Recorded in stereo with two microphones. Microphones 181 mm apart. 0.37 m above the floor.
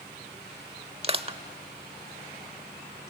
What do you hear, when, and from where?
1.0 s crushing: 35° right (ahead or behind), 0.8 m